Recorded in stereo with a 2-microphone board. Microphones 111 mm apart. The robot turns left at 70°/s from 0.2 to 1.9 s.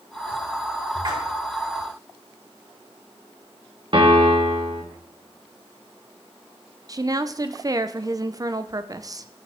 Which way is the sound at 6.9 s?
35° right (ahead or behind).